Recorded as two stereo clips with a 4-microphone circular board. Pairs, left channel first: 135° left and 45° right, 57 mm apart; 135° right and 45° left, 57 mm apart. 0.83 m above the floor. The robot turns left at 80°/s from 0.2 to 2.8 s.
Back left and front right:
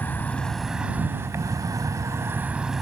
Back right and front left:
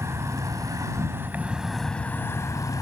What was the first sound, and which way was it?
An insect, 80° left.